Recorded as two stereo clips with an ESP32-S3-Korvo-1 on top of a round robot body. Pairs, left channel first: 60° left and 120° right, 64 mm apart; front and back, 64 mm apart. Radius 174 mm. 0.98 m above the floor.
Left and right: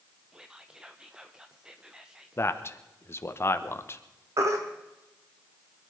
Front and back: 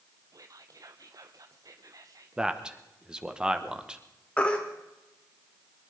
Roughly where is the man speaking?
Left.